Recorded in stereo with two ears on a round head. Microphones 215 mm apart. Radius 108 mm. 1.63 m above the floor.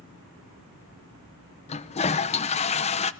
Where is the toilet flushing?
25° left (ahead or behind), 0.6 m.